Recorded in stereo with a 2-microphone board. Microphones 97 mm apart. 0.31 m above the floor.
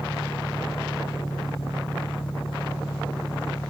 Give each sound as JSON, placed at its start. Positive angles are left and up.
{"t": 0.0, "sound": "an engine running", "side_deg": 45}